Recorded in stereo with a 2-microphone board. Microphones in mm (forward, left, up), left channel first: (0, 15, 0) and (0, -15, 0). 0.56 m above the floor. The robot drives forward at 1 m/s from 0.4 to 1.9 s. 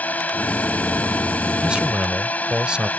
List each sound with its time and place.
0.0 s a drone: 60° left (ahead or behind); by 3.0 s 55° left (ahead or behind)
1.6 s a man speaking: 35° right (ahead or behind); by 2.9 s 30° right (ahead or behind)